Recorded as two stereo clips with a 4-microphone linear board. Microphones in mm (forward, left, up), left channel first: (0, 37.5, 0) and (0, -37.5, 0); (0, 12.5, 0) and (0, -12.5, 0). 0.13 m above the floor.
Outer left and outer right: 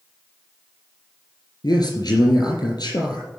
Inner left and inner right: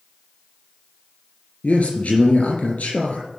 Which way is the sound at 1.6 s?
60° left (ahead or behind).